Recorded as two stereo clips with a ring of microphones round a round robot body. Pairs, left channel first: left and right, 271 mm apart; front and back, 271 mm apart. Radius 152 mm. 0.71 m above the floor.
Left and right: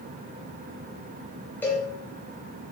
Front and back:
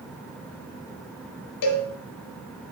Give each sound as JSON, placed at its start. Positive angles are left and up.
{"t": 1.6, "sound": "a cowbell", "azimuth_deg": 5, "distance_m": 1.0}